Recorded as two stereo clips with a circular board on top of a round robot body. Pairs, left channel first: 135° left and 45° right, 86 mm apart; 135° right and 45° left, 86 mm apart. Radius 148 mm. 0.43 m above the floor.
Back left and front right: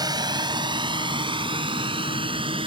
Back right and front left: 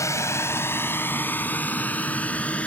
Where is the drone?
85° right; by 2.7 s 60° right.